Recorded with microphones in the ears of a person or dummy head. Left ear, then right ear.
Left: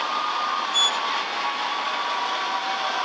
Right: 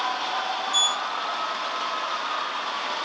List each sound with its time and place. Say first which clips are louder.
0.7 s a sliding door: left 1 dB; 35° right (ahead or behind), 1.2 m